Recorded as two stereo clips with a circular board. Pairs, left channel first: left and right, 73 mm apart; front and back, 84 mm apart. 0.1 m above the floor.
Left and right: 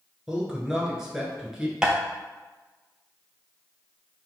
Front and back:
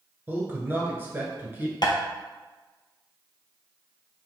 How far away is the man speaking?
About 1.3 m.